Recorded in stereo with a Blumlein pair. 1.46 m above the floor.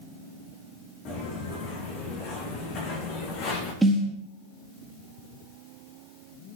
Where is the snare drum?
10° right, 1.9 m.